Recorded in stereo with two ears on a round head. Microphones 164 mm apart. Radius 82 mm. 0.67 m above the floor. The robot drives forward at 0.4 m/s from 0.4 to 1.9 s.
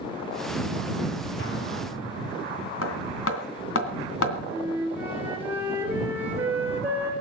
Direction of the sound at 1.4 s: 65° left (ahead or behind).